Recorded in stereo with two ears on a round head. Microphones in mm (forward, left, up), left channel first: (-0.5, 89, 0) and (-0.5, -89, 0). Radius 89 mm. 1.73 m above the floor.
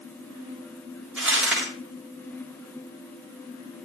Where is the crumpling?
Centre (ahead or behind), 7.5 m.